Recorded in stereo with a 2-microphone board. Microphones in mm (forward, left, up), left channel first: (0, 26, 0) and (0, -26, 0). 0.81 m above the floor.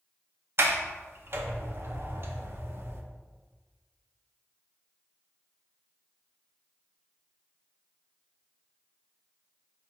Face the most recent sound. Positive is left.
turn(degrees=-50)  # may be behind; listen again after turning